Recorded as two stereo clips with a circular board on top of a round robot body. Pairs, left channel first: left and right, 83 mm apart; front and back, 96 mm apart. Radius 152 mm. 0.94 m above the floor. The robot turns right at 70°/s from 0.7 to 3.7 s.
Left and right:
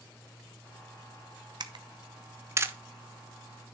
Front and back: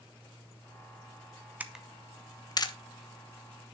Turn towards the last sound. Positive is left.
turn(degrees=40)